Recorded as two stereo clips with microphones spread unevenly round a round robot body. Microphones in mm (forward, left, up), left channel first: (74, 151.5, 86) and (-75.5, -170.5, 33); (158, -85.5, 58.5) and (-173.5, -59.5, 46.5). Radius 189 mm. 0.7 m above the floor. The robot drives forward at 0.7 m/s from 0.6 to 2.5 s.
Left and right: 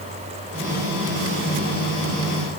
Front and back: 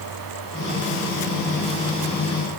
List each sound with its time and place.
Only background noise.